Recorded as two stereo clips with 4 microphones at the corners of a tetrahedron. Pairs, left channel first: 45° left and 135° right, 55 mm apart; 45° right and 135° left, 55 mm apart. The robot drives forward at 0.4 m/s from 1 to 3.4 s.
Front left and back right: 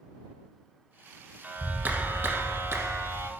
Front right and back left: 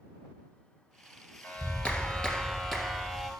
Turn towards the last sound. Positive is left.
turn(degrees=-135)